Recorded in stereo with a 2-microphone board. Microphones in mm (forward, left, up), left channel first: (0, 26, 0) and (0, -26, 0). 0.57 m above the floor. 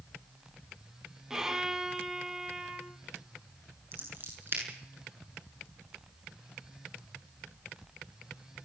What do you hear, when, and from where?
1.3 s a violin: 10° right (ahead or behind), 2.5 m
3.9 s scissors: 45° right (ahead or behind), 7.5 m